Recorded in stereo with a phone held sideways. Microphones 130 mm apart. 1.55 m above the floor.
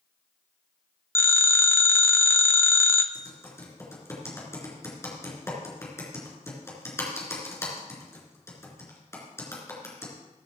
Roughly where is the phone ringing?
Centre.